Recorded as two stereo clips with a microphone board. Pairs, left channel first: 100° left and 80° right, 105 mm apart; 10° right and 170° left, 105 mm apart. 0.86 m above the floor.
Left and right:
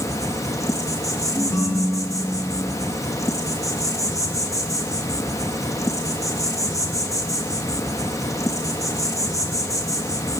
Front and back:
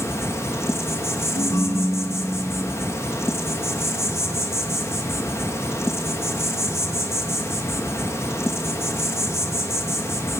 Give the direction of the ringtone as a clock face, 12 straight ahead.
11 o'clock.